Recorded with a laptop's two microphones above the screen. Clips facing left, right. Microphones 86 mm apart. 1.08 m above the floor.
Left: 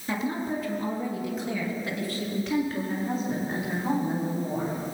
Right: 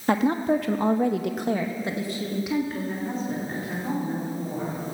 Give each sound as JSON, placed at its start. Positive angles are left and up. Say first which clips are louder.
{"t": 0.1, "sound": "a woman speaking", "louder": "right 7 dB", "side_deg": -60, "distance_m": 1.7}